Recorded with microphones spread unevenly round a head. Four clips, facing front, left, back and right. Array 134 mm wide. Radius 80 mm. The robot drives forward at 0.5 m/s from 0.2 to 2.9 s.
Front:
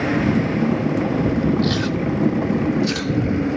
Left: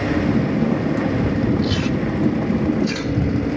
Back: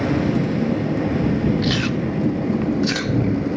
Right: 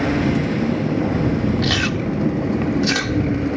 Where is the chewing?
85° right; by 3.6 s 105° right.